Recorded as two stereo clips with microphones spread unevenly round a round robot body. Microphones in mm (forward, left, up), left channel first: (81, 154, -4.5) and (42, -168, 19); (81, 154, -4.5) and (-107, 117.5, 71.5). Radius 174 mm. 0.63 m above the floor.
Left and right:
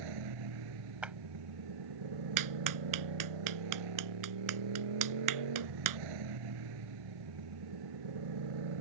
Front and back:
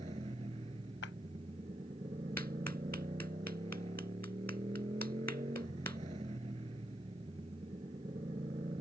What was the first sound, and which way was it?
A motorcycle, 100° right.